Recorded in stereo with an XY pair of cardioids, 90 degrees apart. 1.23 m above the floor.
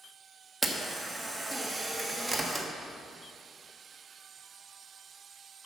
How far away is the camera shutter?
About 1.6 m.